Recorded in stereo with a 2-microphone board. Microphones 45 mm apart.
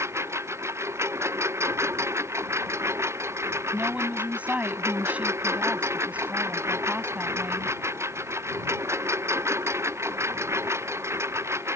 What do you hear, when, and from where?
0.0 s a lawn mower: 85° right
3.7 s a woman speaking: 30° right (ahead or behind)